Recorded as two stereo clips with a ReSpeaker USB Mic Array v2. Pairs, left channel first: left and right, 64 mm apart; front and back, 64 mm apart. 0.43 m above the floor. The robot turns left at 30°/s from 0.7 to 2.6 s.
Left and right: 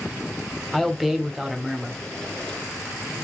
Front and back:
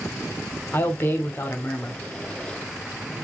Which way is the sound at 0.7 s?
5° left.